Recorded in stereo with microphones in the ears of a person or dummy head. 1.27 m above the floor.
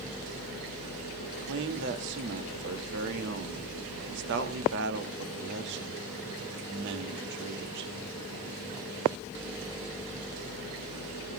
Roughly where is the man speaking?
Right.